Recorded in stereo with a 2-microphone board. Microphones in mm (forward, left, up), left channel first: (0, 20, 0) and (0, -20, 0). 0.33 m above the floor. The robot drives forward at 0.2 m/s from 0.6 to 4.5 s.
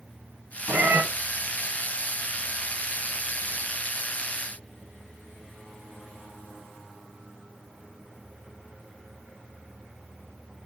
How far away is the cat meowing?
About 1.5 m.